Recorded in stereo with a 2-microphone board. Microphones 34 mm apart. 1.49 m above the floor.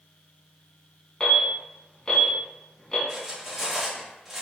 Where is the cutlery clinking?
10° right (ahead or behind), 1.5 m.